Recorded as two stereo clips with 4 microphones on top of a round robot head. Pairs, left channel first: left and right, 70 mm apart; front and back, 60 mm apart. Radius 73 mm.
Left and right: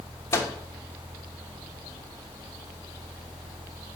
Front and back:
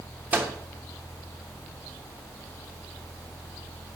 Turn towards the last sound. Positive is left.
turn(degrees=125)